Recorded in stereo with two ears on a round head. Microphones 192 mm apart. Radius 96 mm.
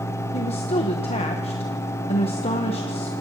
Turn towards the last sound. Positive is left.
turn(degrees=30)  # may be behind; listen again after turning